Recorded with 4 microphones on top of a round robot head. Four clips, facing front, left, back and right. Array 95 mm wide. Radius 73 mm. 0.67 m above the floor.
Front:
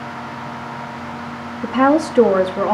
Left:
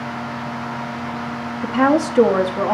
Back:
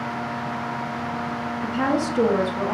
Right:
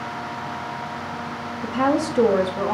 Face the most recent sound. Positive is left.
turn(degrees=30)